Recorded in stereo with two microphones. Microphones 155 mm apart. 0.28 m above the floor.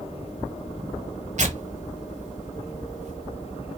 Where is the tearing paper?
50° right (ahead or behind), 0.7 m.